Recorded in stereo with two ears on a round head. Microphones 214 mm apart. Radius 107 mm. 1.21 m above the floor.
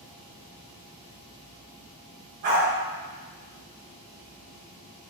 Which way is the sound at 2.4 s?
50° right (ahead or behind).